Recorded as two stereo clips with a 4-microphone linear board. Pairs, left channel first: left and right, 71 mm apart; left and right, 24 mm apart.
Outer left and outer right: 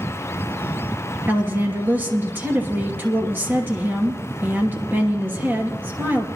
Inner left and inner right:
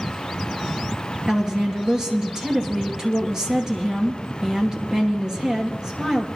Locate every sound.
1.3 s a woman speaking: 30° right (ahead or behind), 2.5 m